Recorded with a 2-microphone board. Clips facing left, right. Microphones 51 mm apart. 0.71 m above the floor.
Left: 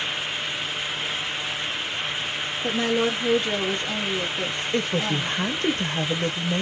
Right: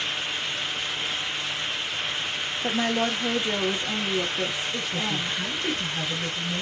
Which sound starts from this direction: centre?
A woman speaking, at 2.6 s.